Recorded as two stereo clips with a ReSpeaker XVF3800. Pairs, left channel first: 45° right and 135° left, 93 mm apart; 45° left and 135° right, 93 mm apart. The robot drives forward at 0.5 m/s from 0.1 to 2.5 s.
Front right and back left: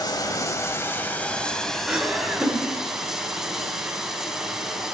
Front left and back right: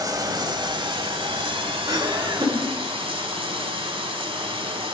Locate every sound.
0.0 s running water: 90° right, 1.0 m; by 5.0 s 140° right, 1.5 m
1.9 s laughter: 150° right, 1.9 m; by 2.7 s 155° right, 2 m